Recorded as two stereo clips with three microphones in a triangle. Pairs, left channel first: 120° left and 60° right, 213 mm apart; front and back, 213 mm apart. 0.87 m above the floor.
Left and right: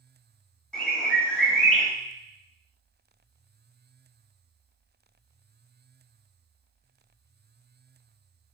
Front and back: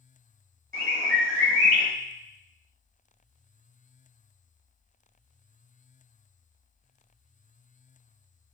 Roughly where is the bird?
Behind right.